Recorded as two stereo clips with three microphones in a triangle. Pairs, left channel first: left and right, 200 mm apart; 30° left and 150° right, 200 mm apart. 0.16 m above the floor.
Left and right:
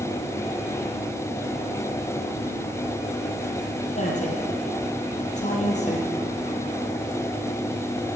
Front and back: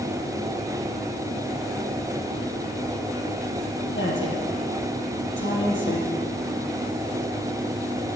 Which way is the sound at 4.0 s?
40° left.